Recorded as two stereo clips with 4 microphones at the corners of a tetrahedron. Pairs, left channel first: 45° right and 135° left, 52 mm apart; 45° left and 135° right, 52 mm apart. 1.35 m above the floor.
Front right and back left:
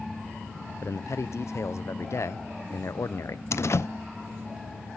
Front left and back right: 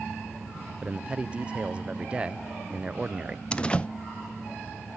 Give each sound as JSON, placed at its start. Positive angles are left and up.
{"t": 0.8, "sound": "a man speaking", "azimuth_deg": -65, "distance_m": 0.5}
{"t": 3.5, "sound": "a door slam", "azimuth_deg": -25, "distance_m": 0.5}